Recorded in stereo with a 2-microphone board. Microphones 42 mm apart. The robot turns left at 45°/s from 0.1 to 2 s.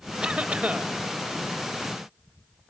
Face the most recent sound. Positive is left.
turn(degrees=-115)